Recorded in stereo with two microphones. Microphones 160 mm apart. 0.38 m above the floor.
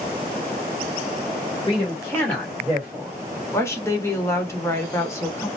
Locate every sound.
1.7 s a man speaking: 30° left (ahead or behind), 1.6 m; by 3.1 s 25° right (ahead or behind), 1.6 m
3.5 s a woman speaking: 15° left (ahead or behind), 0.8 m